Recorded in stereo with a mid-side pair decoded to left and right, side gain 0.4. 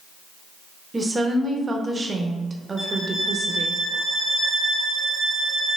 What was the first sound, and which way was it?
A woman speaking, 30° right.